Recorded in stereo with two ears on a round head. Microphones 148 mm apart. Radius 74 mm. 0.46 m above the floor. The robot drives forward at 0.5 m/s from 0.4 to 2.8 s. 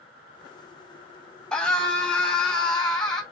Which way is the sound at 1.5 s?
5° left (ahead or behind).